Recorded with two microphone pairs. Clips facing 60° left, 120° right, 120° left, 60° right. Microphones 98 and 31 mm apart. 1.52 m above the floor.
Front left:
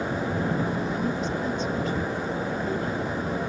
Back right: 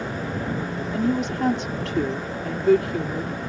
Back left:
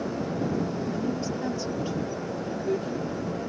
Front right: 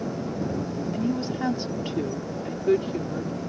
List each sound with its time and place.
0.9 s a woman speaking: 115° right